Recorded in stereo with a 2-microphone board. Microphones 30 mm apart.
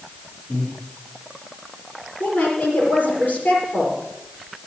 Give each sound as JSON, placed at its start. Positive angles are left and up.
{"t": 0.5, "sound": "breathing", "side_deg": 40, "distance_m": 7.5}
{"t": 2.2, "sound": "a woman speaking", "side_deg": 65, "distance_m": 6.0}